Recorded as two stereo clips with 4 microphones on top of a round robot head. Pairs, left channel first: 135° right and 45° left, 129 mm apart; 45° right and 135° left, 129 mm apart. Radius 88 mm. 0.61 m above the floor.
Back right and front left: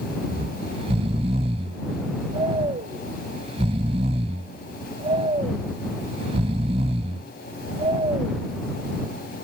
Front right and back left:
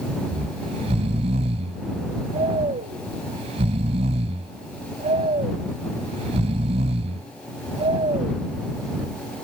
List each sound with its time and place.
0.3 s snoring: 90° left